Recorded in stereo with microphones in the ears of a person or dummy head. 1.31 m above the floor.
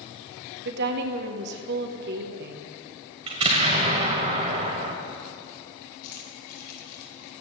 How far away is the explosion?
About 1.4 m.